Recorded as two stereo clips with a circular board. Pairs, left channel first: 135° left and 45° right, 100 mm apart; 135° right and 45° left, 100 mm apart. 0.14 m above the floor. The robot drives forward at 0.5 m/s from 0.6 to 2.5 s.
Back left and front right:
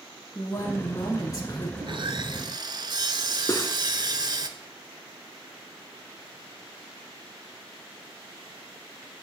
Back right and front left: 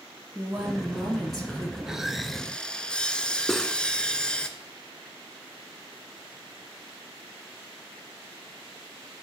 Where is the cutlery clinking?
135° left, 0.7 m.